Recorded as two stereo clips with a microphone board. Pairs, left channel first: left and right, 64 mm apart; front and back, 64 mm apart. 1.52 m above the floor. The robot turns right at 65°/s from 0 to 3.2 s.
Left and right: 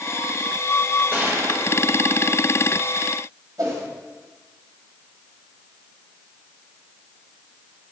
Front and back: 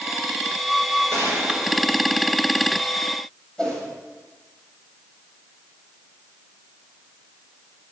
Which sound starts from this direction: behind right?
A gunshot, at 1.1 s.